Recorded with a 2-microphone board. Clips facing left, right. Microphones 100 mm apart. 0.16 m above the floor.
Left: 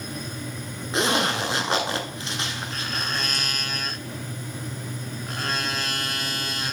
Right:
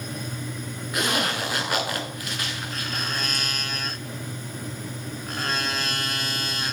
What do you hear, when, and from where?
0.9 s a zipper: 30° left (ahead or behind), 0.9 m